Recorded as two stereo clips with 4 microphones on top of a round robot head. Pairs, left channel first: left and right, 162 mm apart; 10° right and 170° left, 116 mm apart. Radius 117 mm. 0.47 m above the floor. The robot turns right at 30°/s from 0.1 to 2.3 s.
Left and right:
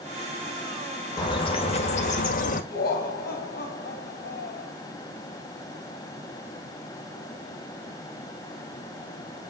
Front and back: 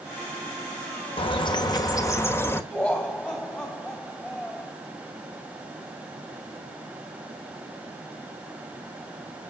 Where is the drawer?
No drawer in this recording.